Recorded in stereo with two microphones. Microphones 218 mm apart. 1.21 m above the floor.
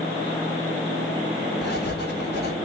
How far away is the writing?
About 4 m.